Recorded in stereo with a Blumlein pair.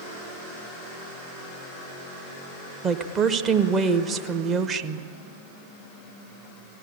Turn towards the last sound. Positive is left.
turn(degrees=-25)